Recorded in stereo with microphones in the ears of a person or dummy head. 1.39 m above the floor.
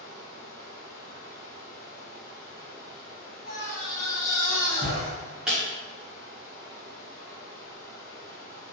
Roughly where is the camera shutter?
No camera shutter in this recording.